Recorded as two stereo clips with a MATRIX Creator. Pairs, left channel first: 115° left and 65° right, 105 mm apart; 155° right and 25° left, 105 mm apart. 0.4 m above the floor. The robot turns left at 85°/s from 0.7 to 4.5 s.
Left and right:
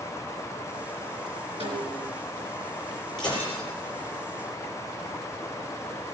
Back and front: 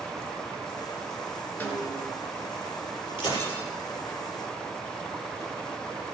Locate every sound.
1.6 s a snare drum: 85° right, 3.5 m; by 2.1 s 130° right, 3.5 m
3.2 s breaking glass: 160° left, 6 m; by 3.6 s 125° left, 6 m